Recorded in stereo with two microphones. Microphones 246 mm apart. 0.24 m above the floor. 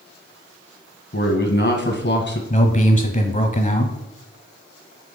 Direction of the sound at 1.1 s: 50° left (ahead or behind).